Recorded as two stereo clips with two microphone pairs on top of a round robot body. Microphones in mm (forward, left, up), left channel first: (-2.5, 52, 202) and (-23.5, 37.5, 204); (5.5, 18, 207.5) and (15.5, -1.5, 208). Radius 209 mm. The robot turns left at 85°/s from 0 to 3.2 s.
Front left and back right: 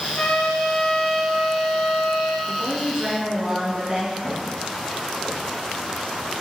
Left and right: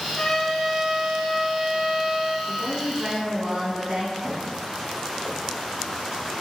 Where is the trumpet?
75° left, 0.7 m; by 2.4 s 110° right, 0.7 m.